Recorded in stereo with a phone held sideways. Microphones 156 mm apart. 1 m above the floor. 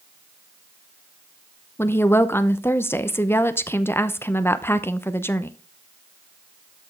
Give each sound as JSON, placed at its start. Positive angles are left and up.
{"t": 1.8, "sound": "a woman speaking", "side_deg": 15, "distance_m": 0.7}